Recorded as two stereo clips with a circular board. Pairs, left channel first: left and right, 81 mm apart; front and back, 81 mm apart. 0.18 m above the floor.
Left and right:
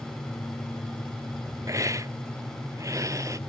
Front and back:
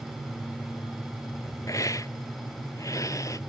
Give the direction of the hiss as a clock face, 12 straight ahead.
1 o'clock.